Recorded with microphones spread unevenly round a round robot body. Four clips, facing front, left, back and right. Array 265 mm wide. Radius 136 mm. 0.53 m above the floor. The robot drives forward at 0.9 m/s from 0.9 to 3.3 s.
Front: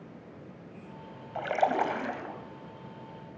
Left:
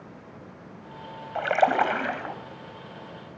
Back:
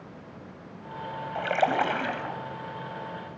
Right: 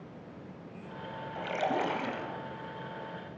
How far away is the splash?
About 3 m.